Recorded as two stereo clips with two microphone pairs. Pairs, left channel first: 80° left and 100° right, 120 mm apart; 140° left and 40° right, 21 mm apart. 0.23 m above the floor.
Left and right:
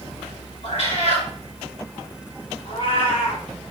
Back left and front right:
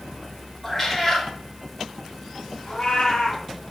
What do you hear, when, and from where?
0.6 s a cat meowing: 60° left, 1.5 m
2.6 s a cat meowing: 105° left, 1.1 m